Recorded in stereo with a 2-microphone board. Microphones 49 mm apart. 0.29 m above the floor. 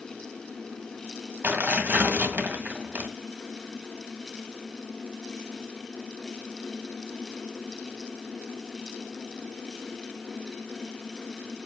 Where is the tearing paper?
40° right (ahead or behind), 1.7 m.